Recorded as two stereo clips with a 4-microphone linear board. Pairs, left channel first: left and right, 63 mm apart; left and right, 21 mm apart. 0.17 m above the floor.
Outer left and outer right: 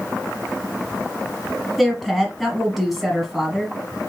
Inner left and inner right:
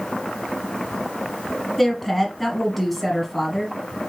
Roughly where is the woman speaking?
Centre.